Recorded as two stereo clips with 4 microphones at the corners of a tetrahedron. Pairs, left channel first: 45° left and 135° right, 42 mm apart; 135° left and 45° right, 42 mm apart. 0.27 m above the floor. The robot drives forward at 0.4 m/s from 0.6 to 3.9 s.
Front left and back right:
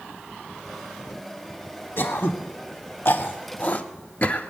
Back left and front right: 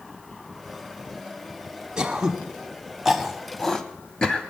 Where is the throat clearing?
25° left, 1.1 m; by 4.5 s 70° left, 0.7 m.